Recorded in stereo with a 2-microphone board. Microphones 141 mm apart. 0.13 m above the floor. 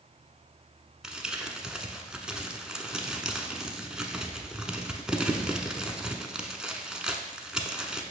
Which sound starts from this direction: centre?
Crumpling, at 1.0 s.